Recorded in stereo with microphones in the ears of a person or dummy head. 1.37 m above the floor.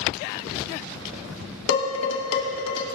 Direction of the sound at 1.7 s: 65° left (ahead or behind).